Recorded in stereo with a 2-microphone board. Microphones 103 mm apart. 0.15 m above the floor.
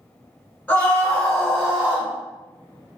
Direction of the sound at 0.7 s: 15° left (ahead or behind).